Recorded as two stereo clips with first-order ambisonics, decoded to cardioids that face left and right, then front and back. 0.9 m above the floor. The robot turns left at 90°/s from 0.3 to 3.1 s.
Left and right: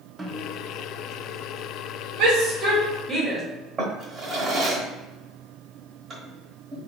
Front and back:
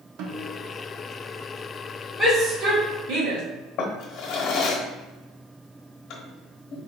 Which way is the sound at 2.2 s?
90° right.